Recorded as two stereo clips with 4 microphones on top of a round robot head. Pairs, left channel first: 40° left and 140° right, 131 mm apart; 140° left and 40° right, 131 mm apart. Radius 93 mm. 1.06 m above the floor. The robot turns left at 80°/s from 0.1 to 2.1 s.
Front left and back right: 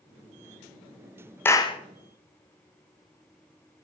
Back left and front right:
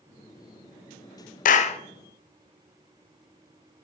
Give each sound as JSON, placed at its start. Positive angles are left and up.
{"t": 1.4, "sound": "a clap", "azimuth_deg": 115, "distance_m": 0.6}